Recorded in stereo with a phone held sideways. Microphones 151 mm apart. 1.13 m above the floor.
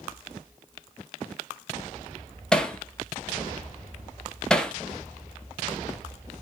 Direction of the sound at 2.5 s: 5° left (ahead or behind).